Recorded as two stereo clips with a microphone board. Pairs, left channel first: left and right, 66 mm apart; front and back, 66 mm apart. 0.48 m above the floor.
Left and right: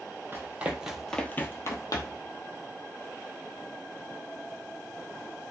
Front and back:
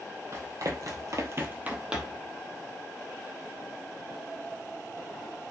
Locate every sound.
0.3 s running footsteps: 145° right, 1.1 m; by 2.3 s 95° left, 1.2 m